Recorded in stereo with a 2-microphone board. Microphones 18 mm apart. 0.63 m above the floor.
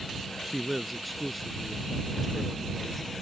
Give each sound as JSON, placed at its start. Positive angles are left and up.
{"t": 0.4, "sound": "a man speaking", "side_deg": 5}